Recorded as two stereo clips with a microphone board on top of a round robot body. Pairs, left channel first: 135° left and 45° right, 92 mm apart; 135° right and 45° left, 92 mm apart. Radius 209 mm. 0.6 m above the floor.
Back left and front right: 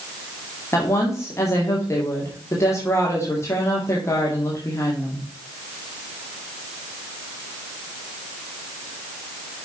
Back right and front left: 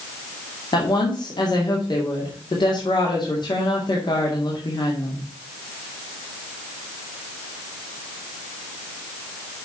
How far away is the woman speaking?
About 2 m.